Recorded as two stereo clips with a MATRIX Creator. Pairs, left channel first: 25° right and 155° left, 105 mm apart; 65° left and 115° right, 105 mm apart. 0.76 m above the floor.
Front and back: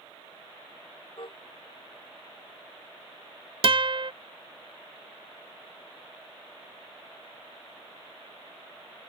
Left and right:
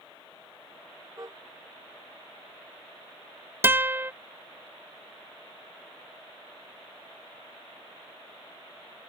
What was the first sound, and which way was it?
A car horn, 55° right.